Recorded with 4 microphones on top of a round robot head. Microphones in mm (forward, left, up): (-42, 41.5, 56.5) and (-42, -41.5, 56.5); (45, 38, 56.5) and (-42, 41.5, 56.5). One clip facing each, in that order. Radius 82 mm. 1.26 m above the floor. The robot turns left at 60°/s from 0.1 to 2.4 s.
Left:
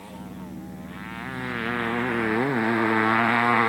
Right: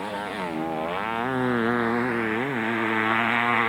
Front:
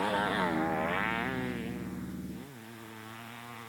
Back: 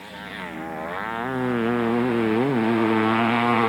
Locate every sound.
0.0 s a motorcycle: 55° right; by 3.7 s 170° left